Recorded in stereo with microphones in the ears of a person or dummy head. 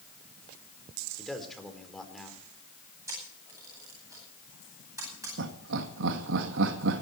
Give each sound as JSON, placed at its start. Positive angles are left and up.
{"t": 1.2, "sound": "a man speaking", "side_deg": 5, "distance_m": 4.0}
{"t": 3.1, "sound": "a camera shutter", "side_deg": -15, "distance_m": 10.0}
{"t": 5.4, "sound": "laughter", "side_deg": -70, "distance_m": 1.7}